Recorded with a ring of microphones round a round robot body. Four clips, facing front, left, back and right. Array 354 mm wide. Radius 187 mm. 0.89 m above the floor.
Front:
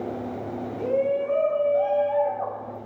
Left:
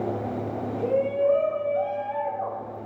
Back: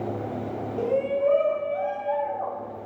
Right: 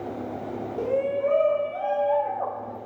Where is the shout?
140° right, 2.5 m; by 2.8 s 75° right, 2.5 m.